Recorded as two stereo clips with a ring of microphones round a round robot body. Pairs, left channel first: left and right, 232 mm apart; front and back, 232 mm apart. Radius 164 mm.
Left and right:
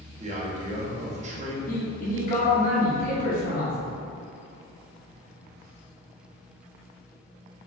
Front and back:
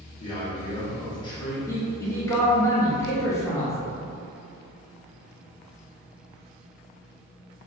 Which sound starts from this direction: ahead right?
A man speaking, at 0.2 s.